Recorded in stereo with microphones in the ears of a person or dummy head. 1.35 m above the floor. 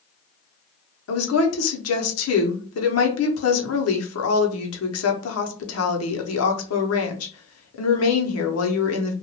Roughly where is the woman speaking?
Left.